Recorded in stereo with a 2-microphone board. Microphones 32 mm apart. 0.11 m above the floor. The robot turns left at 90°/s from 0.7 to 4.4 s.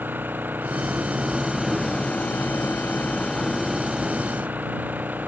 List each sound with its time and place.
0.0 s an engine running: 95° right; by 5.3 s 65° right